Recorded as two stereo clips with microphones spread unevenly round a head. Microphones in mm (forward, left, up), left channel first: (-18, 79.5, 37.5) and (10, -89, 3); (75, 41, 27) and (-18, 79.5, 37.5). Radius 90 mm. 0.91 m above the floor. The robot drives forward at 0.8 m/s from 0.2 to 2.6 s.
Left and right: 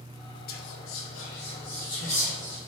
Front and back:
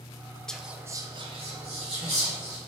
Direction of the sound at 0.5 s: 60° left.